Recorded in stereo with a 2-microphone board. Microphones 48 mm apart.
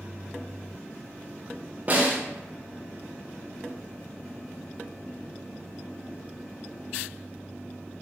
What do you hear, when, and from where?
1.9 s a snare drum: 35° right (ahead or behind), 0.6 m